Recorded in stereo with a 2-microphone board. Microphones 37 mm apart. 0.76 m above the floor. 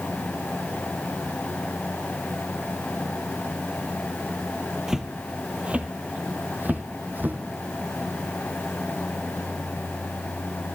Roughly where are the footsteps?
Centre.